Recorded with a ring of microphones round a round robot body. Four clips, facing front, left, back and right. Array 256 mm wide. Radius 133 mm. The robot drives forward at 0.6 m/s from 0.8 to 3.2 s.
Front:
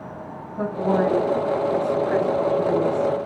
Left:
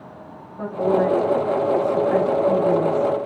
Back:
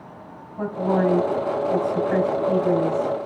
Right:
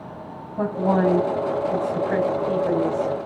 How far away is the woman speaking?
About 5.5 m.